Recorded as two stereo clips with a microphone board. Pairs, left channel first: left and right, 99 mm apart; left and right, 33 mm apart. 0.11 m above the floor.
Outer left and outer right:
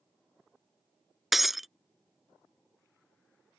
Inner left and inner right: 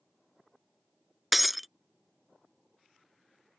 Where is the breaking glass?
Centre (ahead or behind).